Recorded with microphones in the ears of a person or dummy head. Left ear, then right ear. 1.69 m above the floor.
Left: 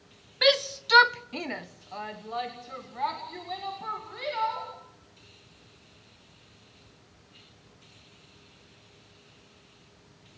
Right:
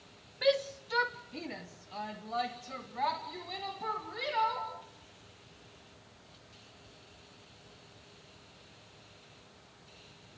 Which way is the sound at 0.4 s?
45° left (ahead or behind).